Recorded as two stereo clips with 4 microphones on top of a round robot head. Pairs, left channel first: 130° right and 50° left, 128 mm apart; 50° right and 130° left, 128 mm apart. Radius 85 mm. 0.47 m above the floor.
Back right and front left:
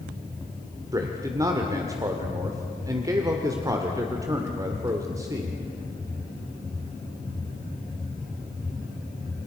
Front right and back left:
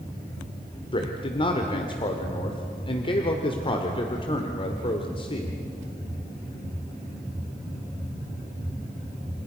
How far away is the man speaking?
About 1.8 m.